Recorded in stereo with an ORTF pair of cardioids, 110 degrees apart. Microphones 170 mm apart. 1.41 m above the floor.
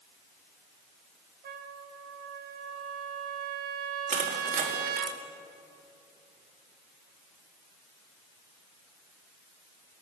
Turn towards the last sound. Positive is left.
turn(degrees=-50)